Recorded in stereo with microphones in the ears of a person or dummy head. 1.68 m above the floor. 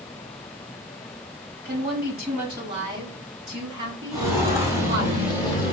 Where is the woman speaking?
35° right (ahead or behind), 1.8 m; by 5.1 s 45° right (ahead or behind), 4 m.